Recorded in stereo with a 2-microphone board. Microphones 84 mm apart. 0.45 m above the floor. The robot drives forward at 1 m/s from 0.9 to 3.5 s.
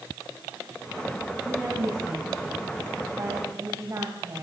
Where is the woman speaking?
20° right (ahead or behind), 5 m; by 4.4 s 35° right (ahead or behind), 3 m.